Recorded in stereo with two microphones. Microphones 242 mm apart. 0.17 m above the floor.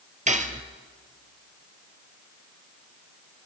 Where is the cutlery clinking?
30° right (ahead or behind), 1.9 m.